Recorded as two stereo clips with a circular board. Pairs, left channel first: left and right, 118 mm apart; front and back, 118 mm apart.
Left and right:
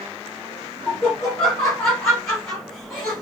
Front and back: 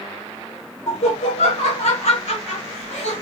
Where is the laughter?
25° left, 1.0 m.